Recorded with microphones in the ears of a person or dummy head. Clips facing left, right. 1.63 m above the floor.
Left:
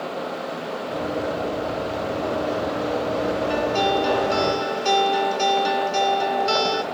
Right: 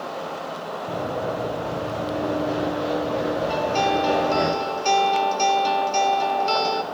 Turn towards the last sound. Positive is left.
turn(degrees=20)  # may be behind; listen again after turning